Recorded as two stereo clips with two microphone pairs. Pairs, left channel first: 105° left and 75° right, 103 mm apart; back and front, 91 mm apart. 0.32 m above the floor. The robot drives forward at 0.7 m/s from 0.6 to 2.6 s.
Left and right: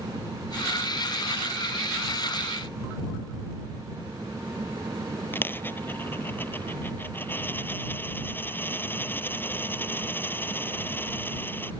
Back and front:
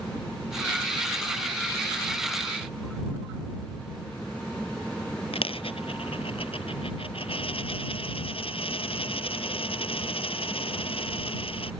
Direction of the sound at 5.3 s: 175° left.